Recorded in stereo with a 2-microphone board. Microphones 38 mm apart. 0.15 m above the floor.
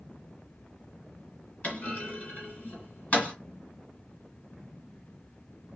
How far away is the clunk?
About 2 m.